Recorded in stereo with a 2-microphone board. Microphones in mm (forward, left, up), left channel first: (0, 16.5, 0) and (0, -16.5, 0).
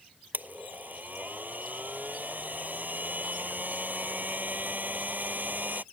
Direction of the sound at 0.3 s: 70° right (ahead or behind).